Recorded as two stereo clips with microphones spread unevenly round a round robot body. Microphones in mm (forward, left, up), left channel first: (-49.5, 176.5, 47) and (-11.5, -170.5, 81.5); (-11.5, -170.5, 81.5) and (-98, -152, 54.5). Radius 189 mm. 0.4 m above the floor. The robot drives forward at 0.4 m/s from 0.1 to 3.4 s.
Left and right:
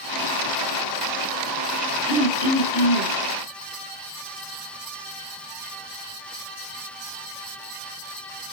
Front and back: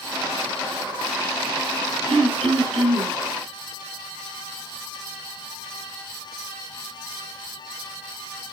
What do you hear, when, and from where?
2.1 s throat clearing: 170° left, 2.5 m; by 3.1 s 175° left, 3 m